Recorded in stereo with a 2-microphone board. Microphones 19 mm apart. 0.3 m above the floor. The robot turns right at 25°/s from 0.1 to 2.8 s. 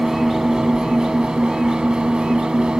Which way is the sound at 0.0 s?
145° right.